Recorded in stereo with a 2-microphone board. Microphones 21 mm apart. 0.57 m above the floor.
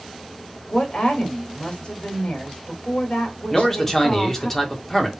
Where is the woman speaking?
60° left (ahead or behind), 1.7 m.